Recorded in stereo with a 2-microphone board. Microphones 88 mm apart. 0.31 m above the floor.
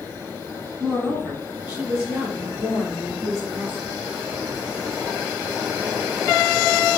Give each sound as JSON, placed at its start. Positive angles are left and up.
{"t": 0.8, "sound": "a woman speaking", "side_deg": -10, "distance_m": 3.0}